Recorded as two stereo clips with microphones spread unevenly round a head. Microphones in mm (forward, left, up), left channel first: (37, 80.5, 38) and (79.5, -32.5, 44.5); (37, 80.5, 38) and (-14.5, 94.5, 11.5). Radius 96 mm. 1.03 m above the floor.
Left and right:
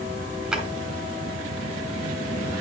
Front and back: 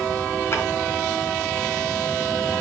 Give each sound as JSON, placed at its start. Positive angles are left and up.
{"t": 0.5, "sound": "a drawer", "azimuth_deg": 15, "distance_m": 3.5}